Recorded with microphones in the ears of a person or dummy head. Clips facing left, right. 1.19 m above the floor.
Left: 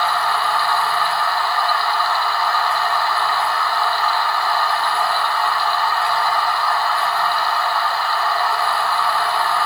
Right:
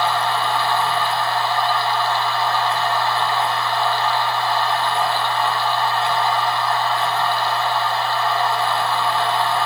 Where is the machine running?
20° right (ahead or behind), 1.6 m.